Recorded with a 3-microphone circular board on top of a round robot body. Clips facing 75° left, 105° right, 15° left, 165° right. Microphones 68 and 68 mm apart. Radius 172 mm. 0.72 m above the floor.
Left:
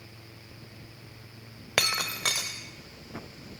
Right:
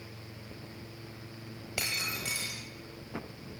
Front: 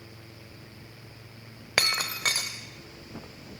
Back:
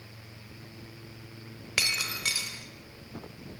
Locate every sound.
1.8 s breaking glass: 55° left, 0.6 m